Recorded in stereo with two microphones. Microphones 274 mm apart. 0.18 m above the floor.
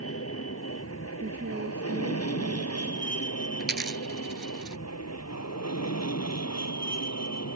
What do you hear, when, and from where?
0.0 s an aircraft: 55° left (ahead or behind); by 7.6 s 70° left (ahead or behind)
1.2 s a woman speaking: 40° right (ahead or behind)
3.6 s a dropped coin: 35° right (ahead or behind)